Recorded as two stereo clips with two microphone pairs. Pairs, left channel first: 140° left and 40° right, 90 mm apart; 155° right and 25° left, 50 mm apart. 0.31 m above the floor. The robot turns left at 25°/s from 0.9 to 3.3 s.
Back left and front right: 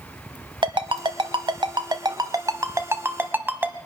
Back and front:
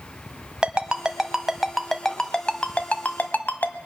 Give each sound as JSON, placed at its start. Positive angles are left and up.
{"t": 0.6, "sound": "a ringtone", "azimuth_deg": -40, "distance_m": 1.0}